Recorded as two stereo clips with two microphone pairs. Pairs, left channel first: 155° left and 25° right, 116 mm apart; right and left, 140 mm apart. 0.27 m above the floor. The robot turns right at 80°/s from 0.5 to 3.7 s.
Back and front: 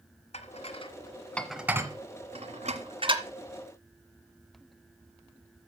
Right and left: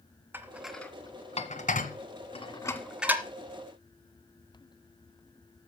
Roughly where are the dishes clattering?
Behind.